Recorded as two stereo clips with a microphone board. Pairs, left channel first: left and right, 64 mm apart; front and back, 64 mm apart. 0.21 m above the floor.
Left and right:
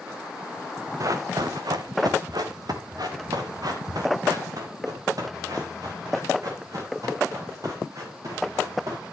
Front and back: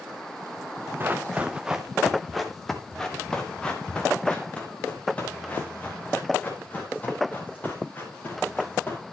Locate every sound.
1.0 s running footsteps: 120° right, 0.9 m; by 9.0 s 60° right, 5 m